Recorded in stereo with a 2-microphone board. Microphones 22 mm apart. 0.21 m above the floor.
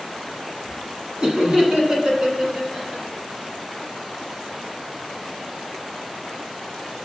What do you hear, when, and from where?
1.2 s laughter: 40° right (ahead or behind), 1.6 m; by 3.0 s 30° right (ahead or behind), 3.5 m